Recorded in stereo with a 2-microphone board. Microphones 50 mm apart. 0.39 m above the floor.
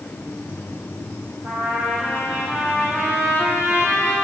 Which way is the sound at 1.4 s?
45° right (ahead or behind).